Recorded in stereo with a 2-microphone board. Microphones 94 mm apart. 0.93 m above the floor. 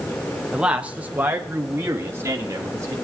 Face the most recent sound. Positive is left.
turn(degrees=-35)  # may be behind; listen again after turning